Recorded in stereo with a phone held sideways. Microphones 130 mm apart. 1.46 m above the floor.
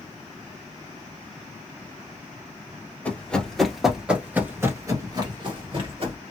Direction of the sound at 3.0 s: 10° left (ahead or behind).